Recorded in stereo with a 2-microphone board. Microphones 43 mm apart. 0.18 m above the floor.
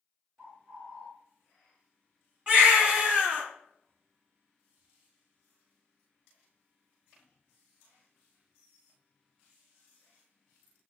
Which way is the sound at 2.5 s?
25° right (ahead or behind).